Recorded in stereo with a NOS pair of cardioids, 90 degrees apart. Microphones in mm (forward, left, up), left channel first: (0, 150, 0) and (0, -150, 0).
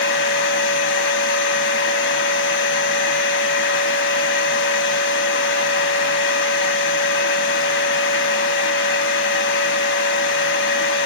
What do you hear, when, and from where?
0.0 s a machine running: 45° left, 0.8 m